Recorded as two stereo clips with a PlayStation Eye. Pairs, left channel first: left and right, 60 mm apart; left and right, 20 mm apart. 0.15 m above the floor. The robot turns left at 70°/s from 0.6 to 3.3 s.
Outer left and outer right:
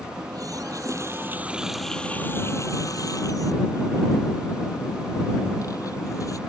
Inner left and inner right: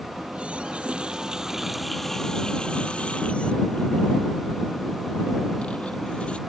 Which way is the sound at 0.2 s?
95° right.